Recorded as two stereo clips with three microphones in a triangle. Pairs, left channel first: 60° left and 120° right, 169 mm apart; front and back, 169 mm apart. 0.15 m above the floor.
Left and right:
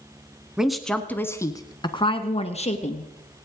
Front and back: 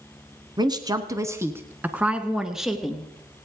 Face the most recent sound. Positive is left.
turn(degrees=90)